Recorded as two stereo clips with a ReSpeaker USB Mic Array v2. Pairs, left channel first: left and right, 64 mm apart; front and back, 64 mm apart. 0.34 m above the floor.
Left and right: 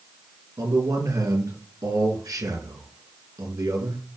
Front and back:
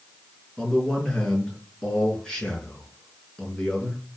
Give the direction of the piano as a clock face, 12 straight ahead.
I don't hear a piano.